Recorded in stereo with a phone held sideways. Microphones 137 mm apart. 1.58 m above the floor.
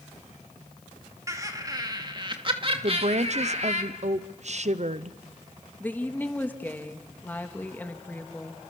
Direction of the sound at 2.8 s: 55° right (ahead or behind).